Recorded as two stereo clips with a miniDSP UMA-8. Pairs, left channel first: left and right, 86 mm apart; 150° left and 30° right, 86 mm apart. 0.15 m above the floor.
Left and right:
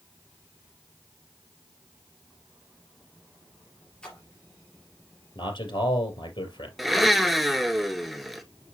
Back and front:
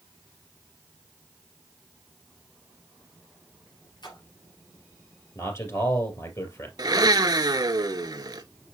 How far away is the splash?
About 3 m.